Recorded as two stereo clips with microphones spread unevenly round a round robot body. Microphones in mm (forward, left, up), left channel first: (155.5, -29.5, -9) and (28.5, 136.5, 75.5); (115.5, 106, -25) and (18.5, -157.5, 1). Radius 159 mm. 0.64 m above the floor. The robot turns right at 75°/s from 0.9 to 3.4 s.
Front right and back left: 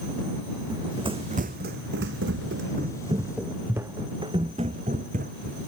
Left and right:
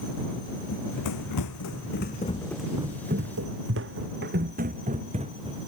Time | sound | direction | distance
0.7 | running footsteps | 65° left | ?